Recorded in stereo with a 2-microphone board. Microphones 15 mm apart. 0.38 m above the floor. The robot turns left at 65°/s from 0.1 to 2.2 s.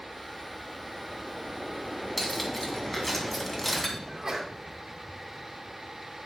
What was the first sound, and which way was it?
Cutlery clinking, 5° left (ahead or behind).